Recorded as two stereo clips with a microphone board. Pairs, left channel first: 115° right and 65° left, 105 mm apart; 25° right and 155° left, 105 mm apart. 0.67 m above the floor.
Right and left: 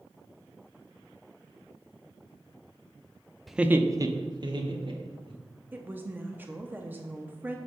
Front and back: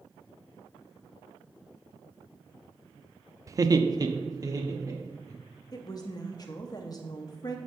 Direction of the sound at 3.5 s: 160° left.